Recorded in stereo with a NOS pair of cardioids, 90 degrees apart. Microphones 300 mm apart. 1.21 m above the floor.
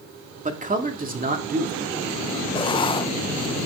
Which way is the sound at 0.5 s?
25° right.